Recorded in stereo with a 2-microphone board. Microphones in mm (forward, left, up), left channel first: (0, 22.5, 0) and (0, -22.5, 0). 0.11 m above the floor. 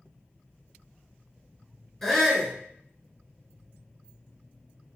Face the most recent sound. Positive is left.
turn(degrees=5)  # may be behind; listen again after turning